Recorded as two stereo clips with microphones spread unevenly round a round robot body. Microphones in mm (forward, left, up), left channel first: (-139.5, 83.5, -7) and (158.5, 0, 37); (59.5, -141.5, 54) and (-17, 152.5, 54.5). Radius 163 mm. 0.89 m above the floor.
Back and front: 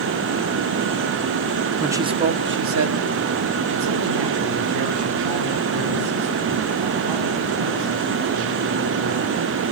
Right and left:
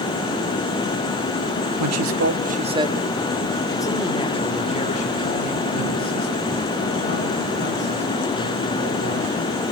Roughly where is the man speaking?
Left.